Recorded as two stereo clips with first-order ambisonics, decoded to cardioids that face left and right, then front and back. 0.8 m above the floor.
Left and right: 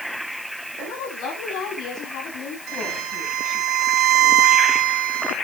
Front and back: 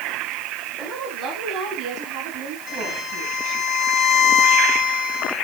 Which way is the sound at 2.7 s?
65° right.